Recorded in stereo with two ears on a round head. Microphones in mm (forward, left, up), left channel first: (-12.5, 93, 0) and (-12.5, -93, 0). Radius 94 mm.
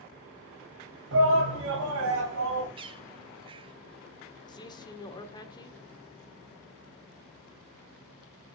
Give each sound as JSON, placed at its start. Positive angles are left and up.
{"t": 1.1, "sound": "a shout", "side_deg": -65, "distance_m": 3.5}
{"t": 2.8, "sound": "a bird", "side_deg": -25, "distance_m": 0.8}
{"t": 4.5, "sound": "a man speaking", "side_deg": 20, "distance_m": 1.2}